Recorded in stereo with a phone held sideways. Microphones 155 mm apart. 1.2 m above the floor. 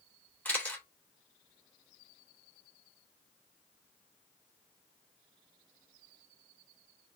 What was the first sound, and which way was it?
A camera shutter, 10° left (ahead or behind).